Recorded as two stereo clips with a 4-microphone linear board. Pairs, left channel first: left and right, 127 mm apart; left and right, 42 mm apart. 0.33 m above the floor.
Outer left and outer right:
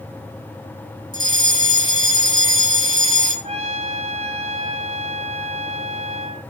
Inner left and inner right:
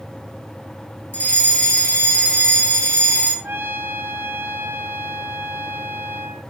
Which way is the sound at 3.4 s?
55° right (ahead or behind).